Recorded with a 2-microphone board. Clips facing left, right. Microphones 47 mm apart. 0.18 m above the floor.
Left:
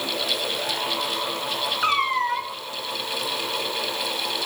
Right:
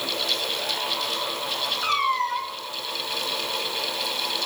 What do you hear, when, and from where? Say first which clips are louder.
1.8 s a cat meowing: left 1 dB; 30° left (ahead or behind), 0.9 m